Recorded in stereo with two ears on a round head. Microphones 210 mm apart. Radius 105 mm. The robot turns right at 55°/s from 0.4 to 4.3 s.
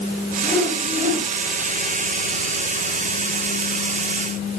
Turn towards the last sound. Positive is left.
turn(degrees=20)